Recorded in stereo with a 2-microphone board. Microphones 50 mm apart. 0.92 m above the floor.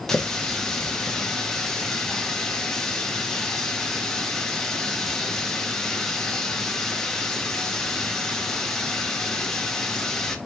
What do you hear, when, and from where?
0.1 s a running tap: 10° left (ahead or behind), 0.7 m